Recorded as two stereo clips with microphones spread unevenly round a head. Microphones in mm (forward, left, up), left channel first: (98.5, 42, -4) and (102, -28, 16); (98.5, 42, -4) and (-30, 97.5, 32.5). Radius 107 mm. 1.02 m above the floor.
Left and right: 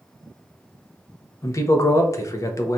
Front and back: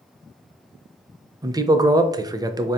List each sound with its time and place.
1.4 s a man speaking: 85° left, 0.5 m